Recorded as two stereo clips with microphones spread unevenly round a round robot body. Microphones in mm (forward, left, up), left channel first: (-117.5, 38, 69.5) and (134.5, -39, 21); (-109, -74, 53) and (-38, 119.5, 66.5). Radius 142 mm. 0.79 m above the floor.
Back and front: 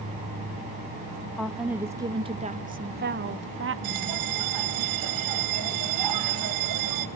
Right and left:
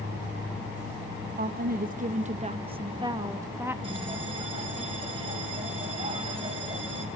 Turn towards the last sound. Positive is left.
turn(degrees=0)